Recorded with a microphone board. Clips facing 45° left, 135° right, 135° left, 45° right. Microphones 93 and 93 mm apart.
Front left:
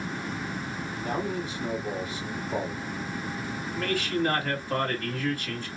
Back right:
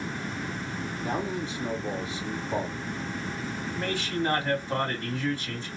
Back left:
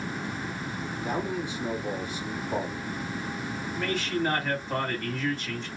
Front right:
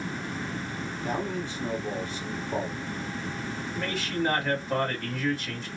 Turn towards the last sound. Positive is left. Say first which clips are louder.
# front left 3 dB, back left 2 dB
turn(degrees=-130)